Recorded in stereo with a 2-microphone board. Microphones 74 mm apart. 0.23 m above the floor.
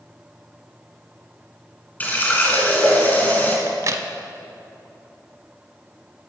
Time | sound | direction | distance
2.0 | a running tap | 25° left (ahead or behind) | 1.5 m
3.7 | a crack | 50° right (ahead or behind) | 0.6 m